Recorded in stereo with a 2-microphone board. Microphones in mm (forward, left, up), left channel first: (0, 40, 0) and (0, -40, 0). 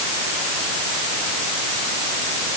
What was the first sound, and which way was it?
Only background noise.